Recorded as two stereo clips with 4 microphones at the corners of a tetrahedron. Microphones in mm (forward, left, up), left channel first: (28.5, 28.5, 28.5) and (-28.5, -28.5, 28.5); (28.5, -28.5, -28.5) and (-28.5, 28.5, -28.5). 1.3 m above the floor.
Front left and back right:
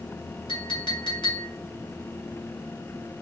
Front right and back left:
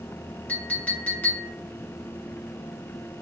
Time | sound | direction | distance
0.5 | a clink | 25° left | 1.1 m